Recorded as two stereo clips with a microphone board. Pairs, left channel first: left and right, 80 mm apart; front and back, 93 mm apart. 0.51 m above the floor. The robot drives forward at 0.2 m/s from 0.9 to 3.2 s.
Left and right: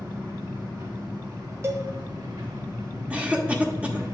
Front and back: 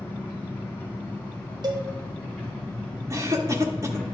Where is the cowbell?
145° right, 1.2 m.